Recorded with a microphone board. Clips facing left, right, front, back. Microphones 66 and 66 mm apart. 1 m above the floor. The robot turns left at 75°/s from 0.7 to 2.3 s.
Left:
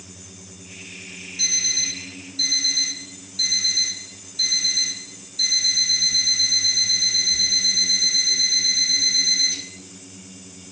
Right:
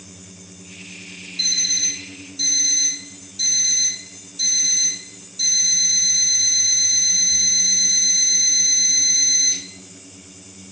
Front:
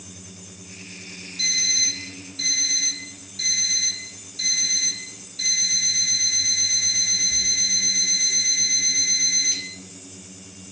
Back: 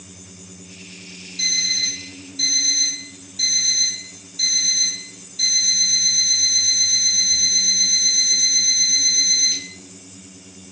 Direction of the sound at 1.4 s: 165° left.